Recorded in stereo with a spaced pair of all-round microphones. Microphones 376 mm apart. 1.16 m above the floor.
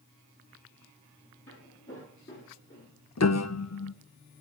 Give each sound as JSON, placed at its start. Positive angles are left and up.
{"t": 1.5, "sound": "footsteps", "side_deg": 35, "distance_m": 6.5}
{"t": 3.2, "sound": "a piano", "side_deg": 45, "distance_m": 0.5}